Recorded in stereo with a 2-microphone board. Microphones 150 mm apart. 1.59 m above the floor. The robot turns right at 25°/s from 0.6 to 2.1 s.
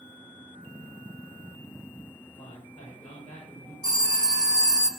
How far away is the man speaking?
About 7 m.